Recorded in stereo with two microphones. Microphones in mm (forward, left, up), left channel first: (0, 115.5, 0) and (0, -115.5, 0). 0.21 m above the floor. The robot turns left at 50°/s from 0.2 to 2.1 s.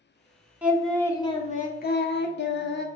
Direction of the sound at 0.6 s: 170° right.